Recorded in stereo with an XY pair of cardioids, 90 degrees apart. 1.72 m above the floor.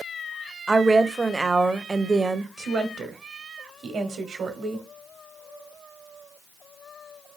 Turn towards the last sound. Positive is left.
turn(degrees=-65)